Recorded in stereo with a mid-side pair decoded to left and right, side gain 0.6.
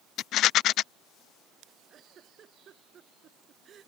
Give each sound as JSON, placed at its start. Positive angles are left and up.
{"t": 0.2, "sound": "a rattle", "azimuth_deg": 60}
{"t": 1.9, "sound": "a giggle", "azimuth_deg": -40}